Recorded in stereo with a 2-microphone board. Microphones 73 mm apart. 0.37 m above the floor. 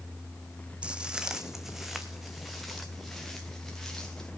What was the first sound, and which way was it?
Footsteps, 15° right (ahead or behind).